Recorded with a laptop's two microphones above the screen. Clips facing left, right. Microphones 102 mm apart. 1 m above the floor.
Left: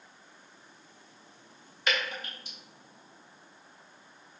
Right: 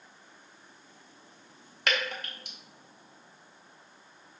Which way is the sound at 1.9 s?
65° right (ahead or behind).